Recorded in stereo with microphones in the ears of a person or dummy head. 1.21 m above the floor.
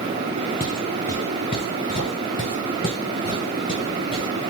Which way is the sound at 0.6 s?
20° left (ahead or behind).